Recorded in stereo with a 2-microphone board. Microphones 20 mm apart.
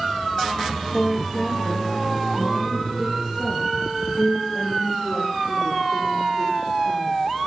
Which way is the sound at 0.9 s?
15° left (ahead or behind).